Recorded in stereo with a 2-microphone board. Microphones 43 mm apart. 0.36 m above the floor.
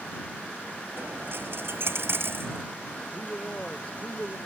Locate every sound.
1.0 s a dropped coin: 60° right (ahead or behind)
3.1 s a man speaking: 30° left (ahead or behind)